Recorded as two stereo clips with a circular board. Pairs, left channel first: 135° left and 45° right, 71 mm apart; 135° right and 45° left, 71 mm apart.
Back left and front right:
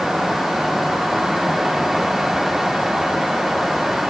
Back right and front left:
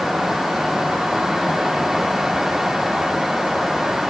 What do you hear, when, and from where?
Only background noise.